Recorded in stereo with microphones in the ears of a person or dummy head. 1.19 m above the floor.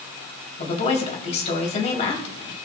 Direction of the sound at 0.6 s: 35° left (ahead or behind).